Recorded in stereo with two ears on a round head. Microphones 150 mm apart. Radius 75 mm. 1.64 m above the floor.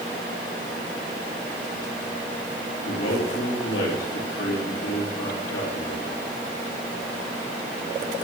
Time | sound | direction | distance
2.9 | a man speaking | 85° left | 4 m